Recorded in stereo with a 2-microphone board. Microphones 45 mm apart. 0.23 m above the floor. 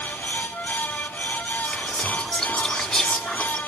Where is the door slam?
I don't hear a door slam.